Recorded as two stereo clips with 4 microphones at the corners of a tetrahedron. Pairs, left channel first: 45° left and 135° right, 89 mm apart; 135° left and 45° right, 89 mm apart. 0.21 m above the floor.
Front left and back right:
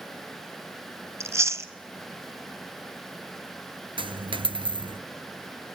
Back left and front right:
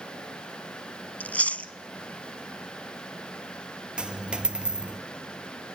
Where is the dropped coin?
125° right, 0.9 m.